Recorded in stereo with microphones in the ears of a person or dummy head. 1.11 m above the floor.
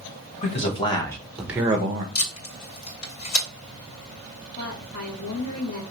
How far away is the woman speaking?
About 1.7 m.